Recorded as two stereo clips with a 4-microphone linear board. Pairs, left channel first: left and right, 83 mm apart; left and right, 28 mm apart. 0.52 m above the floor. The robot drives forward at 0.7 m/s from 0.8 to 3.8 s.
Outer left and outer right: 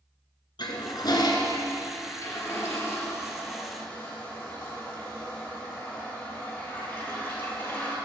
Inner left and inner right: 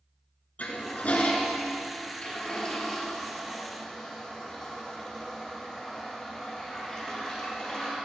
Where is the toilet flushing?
60° left (ahead or behind), 1.4 m; by 8.0 s 25° left (ahead or behind), 3 m.